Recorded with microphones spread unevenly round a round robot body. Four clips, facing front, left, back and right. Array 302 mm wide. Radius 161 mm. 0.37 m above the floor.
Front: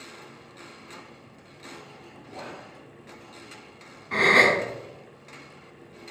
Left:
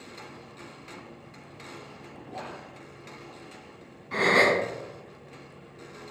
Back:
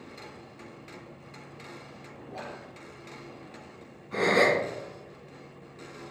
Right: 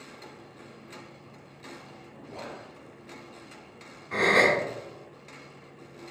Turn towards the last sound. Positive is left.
turn(degrees=-5)